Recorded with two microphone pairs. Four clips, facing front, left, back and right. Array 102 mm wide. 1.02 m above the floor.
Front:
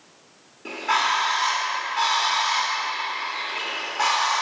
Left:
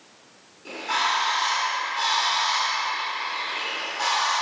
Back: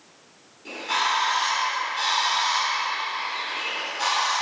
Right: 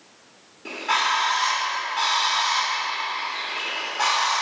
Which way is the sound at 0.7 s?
20° right.